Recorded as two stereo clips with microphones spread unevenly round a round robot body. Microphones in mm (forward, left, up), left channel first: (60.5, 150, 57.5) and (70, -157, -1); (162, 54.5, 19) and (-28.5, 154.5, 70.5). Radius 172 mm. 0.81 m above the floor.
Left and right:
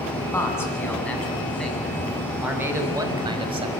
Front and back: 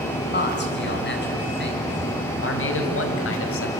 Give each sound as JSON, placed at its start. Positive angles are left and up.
{"t": 0.3, "sound": "a man speaking", "azimuth_deg": 10, "distance_m": 8.0}